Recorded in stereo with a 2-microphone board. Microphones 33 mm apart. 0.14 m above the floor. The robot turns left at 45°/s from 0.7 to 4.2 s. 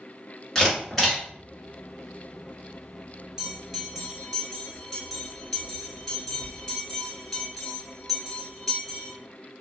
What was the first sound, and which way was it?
A camera shutter, 10° left (ahead or behind).